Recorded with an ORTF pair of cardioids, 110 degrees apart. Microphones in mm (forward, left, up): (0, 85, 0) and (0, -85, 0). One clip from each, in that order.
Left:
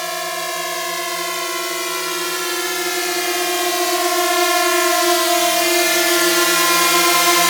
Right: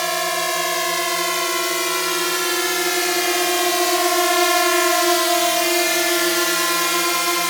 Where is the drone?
20° right; by 7.5 s 35° left.